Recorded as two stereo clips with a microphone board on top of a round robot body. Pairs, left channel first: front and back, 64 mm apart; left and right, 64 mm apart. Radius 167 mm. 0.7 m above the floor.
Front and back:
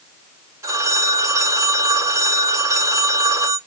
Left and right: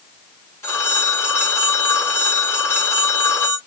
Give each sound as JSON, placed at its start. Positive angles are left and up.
{"t": 0.6, "sound": "a phone ringing", "azimuth_deg": 135, "distance_m": 3.0}